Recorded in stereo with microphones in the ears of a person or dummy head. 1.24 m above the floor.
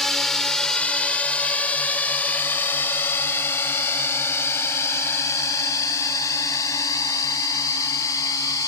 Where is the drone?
Centre (ahead or behind); by 8.7 s 20° left (ahead or behind).